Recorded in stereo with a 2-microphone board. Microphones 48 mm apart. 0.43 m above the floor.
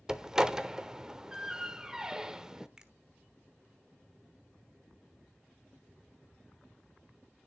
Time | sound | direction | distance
0.1 | a door slam | 15° right (ahead or behind) | 0.7 m
2.8 | a finger snap | 15° right (ahead or behind) | 1.1 m